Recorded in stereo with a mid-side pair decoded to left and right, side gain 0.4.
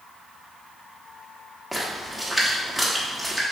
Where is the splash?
5° left, 1.1 m.